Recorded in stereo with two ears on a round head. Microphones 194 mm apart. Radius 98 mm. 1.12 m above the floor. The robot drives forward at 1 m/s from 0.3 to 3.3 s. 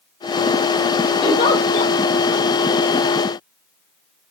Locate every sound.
1.2 s a giggle: 25° left (ahead or behind), 2.5 m; by 1.9 s 35° left (ahead or behind), 2 m